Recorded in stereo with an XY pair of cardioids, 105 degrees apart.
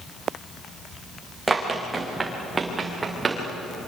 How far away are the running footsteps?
About 5.5 m.